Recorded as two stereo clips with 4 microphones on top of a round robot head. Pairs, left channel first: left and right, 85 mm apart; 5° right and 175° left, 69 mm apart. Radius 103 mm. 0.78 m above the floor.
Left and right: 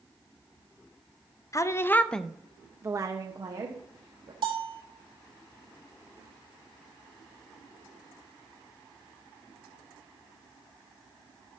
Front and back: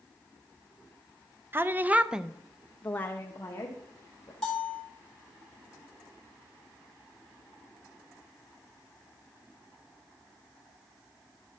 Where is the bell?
90° right, 3 m.